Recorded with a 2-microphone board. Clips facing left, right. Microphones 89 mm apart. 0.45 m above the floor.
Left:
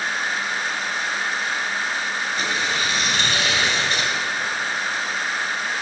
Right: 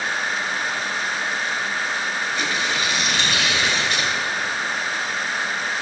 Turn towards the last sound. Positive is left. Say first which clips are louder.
# left 1 dB
turn(degrees=40)  # may be behind; listen again after turning